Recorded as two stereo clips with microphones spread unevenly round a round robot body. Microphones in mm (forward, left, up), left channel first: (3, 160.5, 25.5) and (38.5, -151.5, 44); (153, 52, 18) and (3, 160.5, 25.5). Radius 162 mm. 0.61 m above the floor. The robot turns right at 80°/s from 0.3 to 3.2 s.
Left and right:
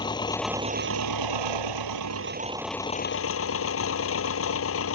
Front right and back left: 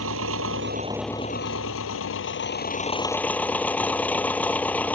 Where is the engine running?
175° left; by 5.0 s 45° left.